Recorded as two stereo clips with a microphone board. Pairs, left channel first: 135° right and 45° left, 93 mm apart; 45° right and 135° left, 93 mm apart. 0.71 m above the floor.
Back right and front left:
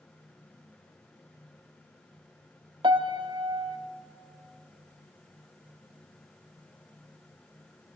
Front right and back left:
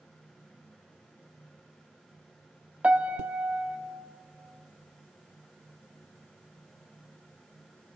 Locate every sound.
2.8 s a piano: 60° left, 1.0 m